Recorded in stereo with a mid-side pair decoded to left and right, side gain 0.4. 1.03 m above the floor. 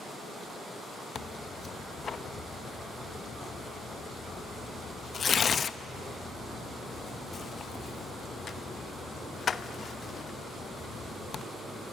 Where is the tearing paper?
50° left, 0.8 m.